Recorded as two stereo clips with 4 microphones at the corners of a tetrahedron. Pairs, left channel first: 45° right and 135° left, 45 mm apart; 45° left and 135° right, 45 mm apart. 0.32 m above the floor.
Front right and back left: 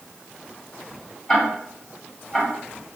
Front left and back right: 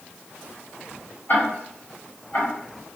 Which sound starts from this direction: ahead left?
Ticking, at 1.3 s.